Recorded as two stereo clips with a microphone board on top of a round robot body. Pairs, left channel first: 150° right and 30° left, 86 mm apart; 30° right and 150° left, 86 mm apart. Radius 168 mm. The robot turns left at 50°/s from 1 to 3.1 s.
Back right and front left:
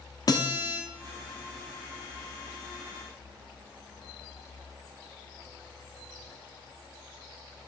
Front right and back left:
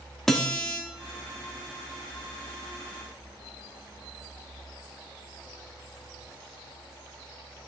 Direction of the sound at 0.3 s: 115° right.